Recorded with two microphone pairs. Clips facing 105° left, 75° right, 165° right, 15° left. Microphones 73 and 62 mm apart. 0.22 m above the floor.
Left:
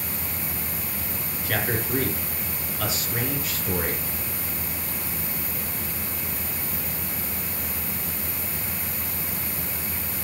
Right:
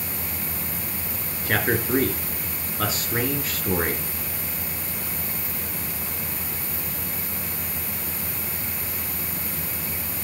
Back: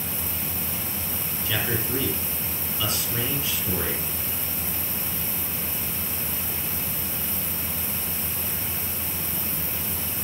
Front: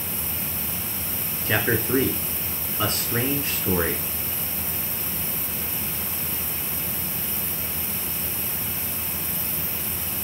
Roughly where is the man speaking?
Ahead right.